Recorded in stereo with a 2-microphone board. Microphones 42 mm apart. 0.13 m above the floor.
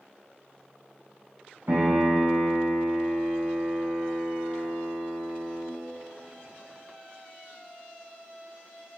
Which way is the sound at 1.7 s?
65° right (ahead or behind).